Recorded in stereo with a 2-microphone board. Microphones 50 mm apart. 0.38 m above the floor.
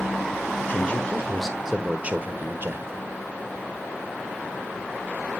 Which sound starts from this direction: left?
A man speaking, at 0.7 s.